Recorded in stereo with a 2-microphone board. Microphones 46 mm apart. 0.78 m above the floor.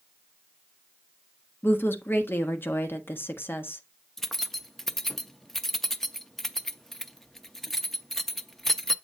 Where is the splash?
I don't hear a splash.